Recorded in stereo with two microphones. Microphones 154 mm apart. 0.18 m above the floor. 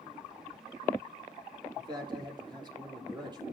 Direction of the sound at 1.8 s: 30° right (ahead or behind).